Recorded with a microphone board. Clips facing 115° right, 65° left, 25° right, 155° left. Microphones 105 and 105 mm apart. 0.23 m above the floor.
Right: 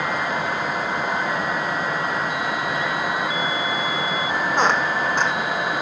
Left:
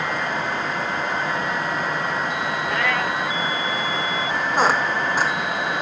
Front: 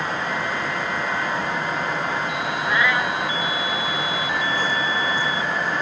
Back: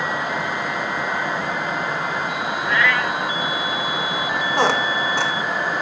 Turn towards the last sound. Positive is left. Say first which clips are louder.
# left 1 dB, back 4 dB
turn(degrees=155)